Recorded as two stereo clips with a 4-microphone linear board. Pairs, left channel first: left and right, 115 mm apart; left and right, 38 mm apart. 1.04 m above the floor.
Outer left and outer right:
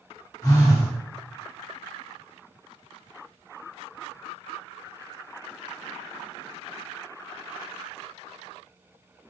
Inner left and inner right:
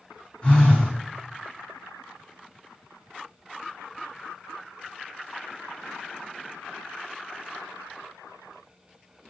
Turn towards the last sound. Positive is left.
turn(degrees=25)  # may be behind; listen again after turning